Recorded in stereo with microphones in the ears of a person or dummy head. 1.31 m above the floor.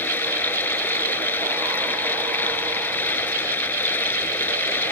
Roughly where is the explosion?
No explosion in this recording.